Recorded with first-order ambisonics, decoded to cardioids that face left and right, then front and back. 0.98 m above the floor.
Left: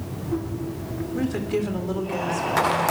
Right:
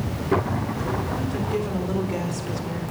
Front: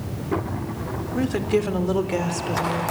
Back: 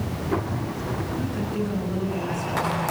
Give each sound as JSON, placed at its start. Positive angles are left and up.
{"t": 1.1, "sound": "a woman speaking", "azimuth_deg": 15, "distance_m": 3.5}